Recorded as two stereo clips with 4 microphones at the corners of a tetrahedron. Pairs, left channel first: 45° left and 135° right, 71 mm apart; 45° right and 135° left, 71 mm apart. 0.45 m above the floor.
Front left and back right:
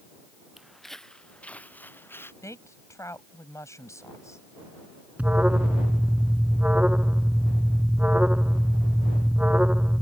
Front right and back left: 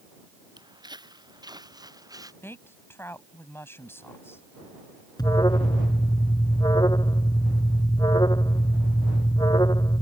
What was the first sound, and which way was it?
Footsteps, 140° left.